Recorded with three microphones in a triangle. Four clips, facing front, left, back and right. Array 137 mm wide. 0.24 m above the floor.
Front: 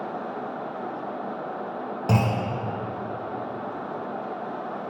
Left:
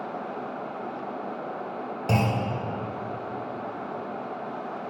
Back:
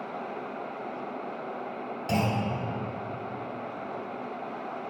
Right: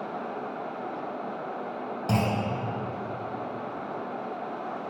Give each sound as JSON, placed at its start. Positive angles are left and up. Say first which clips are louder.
{"t": 2.1, "sound": "a clunk", "louder": "left 1 dB, front 3 dB", "azimuth_deg": 10, "distance_m": 0.9}